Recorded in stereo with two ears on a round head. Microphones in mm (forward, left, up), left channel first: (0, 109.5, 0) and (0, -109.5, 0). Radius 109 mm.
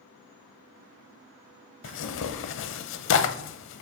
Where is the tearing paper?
55° left (ahead or behind), 0.6 m.